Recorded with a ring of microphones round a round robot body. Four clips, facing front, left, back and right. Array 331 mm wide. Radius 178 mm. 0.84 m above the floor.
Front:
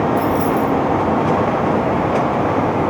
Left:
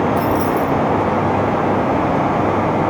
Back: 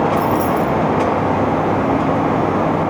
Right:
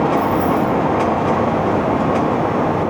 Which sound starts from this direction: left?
Keys jangling, at 0.2 s.